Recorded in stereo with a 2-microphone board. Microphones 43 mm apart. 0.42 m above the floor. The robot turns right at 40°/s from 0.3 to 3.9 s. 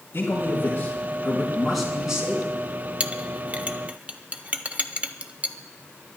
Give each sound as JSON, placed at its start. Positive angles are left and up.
{"t": 0.1, "sound": "a man speaking", "azimuth_deg": 120, "distance_m": 5.0}
{"t": 3.0, "sound": "a clink", "side_deg": -25, "distance_m": 0.7}